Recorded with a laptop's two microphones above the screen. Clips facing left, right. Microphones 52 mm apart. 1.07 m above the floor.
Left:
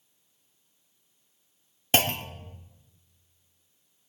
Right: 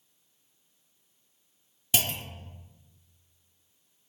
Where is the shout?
No shout in this recording.